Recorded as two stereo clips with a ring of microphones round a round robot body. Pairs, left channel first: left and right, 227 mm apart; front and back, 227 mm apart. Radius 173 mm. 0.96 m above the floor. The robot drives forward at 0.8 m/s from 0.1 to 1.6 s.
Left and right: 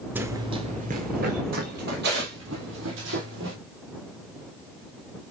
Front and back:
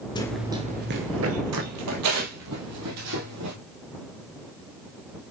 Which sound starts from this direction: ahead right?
Running footsteps, at 0.1 s.